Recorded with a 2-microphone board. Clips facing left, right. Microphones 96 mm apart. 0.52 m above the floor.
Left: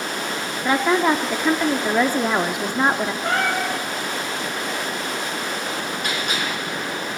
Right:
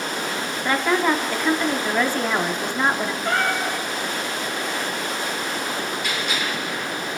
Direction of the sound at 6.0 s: 50° left (ahead or behind).